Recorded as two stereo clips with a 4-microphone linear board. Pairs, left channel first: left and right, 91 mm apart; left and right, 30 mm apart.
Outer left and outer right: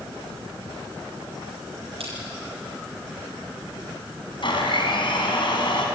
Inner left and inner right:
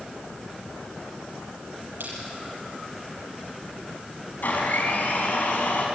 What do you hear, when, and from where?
2.0 s crushing: 85° right, 8.5 m
4.4 s a blender: 60° left (ahead or behind), 4.5 m